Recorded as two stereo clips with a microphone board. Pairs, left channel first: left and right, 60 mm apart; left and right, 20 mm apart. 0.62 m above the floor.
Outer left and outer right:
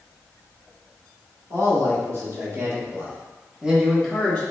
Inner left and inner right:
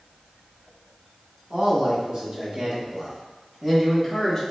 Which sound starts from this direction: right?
A man speaking, at 1.5 s.